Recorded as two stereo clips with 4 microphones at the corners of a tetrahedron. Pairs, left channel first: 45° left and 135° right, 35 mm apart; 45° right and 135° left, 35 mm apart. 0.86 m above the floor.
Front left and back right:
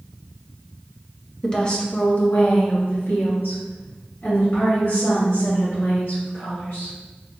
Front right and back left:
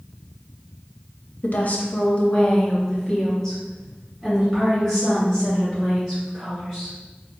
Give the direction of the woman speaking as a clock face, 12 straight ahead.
1 o'clock.